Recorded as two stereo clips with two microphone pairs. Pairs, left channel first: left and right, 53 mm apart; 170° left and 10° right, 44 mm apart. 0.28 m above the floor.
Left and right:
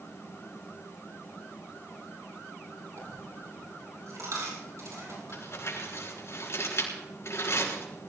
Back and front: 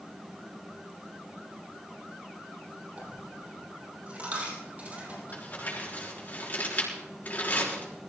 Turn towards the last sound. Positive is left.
turn(degrees=120)